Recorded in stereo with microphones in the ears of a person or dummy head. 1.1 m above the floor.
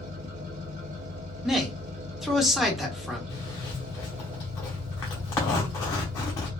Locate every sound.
0.0 s an engine running: 40° right (ahead or behind), 1.6 m
1.4 s a man speaking: 5° right (ahead or behind), 0.8 m
3.3 s a zipper: 15° left (ahead or behind), 0.6 m